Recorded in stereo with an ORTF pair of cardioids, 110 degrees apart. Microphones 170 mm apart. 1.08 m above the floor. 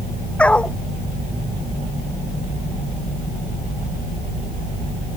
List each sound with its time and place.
0.4 s a dog barking: 5° left